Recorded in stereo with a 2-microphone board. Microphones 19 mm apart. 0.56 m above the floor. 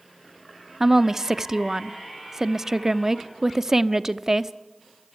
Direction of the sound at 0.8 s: 25° right (ahead or behind).